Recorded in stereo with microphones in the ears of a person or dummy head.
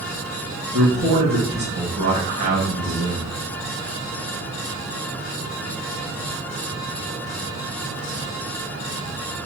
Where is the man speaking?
50° right (ahead or behind), 1.4 m.